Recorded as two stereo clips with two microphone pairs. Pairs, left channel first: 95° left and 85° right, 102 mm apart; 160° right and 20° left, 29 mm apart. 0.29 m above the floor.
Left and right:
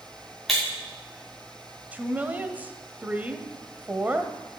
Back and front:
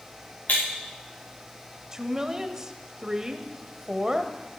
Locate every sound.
0.5 s breaking glass: 175° right, 4.5 m
1.9 s a woman speaking: 25° right, 1.0 m